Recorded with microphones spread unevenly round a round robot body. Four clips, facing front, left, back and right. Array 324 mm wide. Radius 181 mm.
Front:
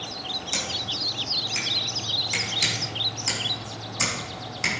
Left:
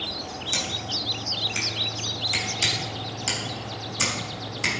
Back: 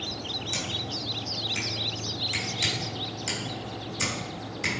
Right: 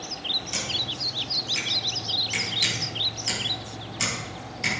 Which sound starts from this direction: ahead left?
Scissors, at 0.5 s.